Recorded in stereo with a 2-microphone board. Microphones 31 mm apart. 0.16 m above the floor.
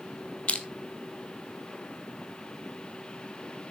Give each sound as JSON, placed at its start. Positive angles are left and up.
{"t": 0.5, "sound": "crushing", "side_deg": 35, "distance_m": 1.1}